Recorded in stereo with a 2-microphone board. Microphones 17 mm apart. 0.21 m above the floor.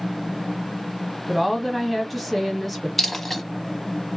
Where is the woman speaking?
Centre (ahead or behind), 1.1 m.